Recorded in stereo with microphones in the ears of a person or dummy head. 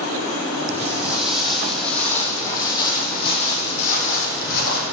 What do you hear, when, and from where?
0.7 s footsteps: 10° right (ahead or behind), 2.0 m; by 4.8 s 55° left (ahead or behind), 2.5 m